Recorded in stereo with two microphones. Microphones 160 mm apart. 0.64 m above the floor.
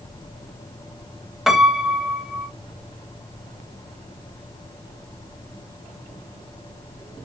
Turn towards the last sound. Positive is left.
turn(degrees=0)  # may be behind; listen again after turning